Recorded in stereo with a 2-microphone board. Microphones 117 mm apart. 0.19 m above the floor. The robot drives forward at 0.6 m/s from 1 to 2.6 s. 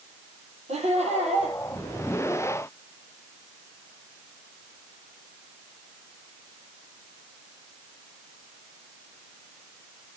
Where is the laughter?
65° right (ahead or behind), 6 m; by 1.6 s 70° right (ahead or behind), 6 m.